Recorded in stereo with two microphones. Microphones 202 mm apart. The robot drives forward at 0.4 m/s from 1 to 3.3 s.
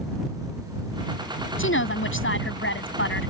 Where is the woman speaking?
80° left; by 3.3 s 75° left (ahead or behind).